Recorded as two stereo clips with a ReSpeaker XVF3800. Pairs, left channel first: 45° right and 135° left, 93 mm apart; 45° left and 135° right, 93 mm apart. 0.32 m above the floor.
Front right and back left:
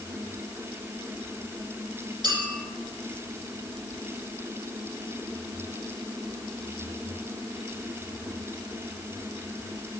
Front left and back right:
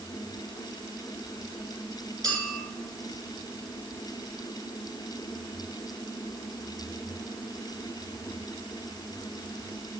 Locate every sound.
2.2 s a clink: 175° left, 5 m